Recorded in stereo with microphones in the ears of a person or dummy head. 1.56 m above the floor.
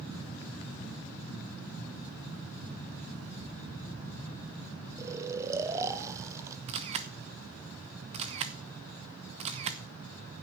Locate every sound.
5.0 s snoring: 20° right (ahead or behind), 0.6 m
6.7 s a camera shutter: 25° right (ahead or behind), 0.5 m